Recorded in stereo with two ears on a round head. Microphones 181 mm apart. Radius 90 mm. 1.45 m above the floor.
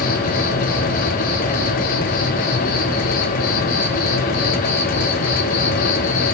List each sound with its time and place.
0.0 s an insect: 40° left (ahead or behind), 4 m